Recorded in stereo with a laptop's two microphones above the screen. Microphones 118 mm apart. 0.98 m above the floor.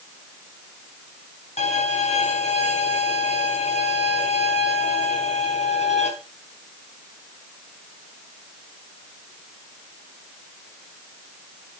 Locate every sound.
1.6 s a violin: 75° left (ahead or behind), 5 m